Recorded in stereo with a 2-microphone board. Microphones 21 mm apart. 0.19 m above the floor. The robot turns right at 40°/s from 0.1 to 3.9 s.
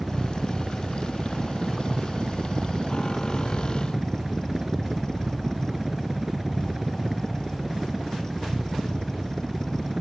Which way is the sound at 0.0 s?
165° right.